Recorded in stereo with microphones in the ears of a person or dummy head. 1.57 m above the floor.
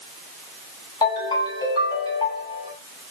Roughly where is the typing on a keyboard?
I don't hear typing on a keyboard.